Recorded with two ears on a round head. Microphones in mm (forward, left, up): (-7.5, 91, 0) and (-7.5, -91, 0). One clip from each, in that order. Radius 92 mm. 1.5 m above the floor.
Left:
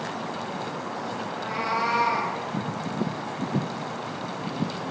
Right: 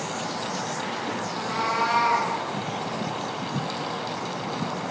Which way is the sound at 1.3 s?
25° right (ahead or behind).